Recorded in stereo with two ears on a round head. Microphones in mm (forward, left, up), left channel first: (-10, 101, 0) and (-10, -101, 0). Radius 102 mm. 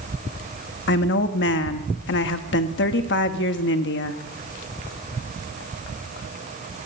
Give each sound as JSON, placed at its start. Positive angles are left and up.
{"t": 0.9, "sound": "a woman speaking", "side_deg": 50, "distance_m": 1.3}